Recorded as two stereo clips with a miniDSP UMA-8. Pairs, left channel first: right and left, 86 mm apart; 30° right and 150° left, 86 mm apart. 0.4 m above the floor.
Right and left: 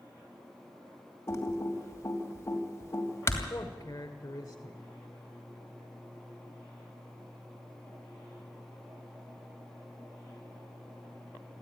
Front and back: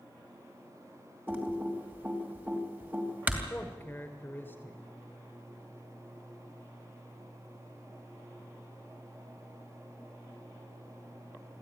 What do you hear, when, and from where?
1.3 s typing on a keyboard: 145° right, 2.5 m
3.5 s a man speaking: 85° right, 1.7 m